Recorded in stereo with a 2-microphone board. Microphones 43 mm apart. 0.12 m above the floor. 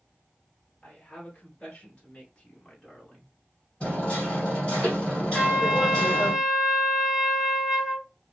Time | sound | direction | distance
0.8 | a woman speaking | 25° left (ahead or behind) | 1.7 m
3.8 | hammering | 25° left (ahead or behind) | 2 m
5.3 | a trumpet | centre (ahead or behind) | 0.9 m